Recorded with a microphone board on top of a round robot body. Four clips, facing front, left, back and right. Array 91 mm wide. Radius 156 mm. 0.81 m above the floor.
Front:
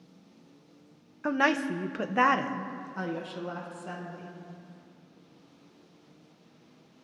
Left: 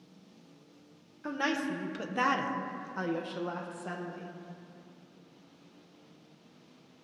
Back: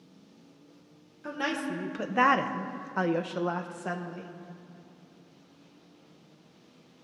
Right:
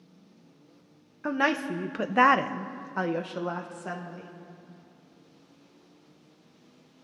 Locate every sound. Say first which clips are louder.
1.2 s a woman speaking: right 5 dB, front 6 dB; 35° right, 1.1 m; by 4.3 s 160° right, 1.6 m